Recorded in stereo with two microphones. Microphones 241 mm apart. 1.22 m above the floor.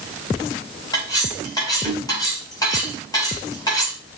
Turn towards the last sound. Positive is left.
turn(degrees=15)  # may be behind; listen again after turning